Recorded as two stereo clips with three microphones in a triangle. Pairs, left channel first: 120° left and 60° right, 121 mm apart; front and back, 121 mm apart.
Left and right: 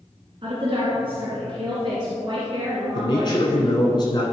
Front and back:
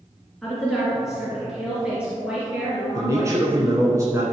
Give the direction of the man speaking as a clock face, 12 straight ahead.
8 o'clock.